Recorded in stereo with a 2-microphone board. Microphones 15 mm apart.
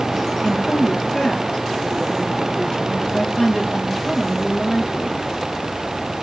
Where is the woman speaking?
85° left, 7.5 m.